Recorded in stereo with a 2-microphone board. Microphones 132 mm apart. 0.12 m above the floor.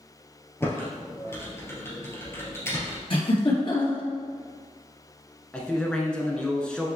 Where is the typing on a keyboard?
20° left (ahead or behind), 2 m.